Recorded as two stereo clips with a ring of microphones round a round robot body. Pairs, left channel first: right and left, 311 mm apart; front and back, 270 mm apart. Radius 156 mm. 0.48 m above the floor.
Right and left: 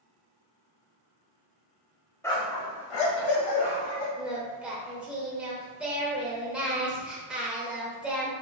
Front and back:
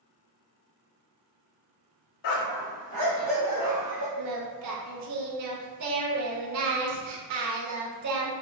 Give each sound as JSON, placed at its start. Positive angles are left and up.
{"t": 2.2, "sound": "a dog barking", "azimuth_deg": -5, "distance_m": 0.6}
{"t": 4.2, "sound": "singing", "azimuth_deg": 175, "distance_m": 0.8}